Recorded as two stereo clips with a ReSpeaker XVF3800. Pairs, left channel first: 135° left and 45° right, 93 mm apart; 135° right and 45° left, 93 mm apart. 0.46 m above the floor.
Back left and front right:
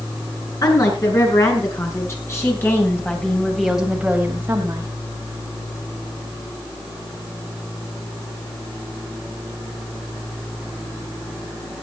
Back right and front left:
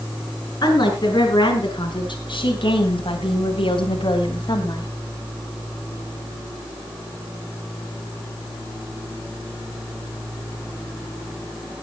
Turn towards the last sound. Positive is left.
turn(degrees=-95)